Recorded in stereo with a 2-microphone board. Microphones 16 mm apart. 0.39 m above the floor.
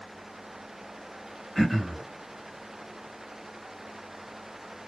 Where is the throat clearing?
10° left (ahead or behind), 1.7 m.